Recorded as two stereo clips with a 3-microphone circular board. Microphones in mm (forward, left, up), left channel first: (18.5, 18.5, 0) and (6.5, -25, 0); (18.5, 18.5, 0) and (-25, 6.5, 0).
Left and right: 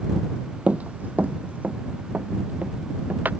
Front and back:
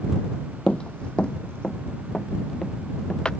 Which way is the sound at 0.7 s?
50° right.